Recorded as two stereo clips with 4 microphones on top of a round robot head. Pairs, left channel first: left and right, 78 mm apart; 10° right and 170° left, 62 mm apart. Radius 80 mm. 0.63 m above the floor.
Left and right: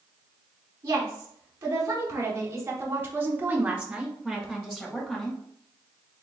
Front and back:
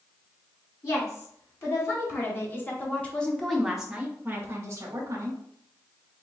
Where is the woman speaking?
40° right, 1.9 m; by 5.4 s 160° left, 1.3 m.